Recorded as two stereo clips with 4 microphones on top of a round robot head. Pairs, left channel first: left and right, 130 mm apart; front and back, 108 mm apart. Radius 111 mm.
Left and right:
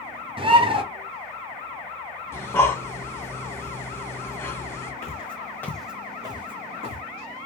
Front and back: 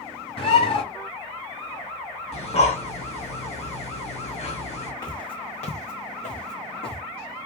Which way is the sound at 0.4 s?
40° right.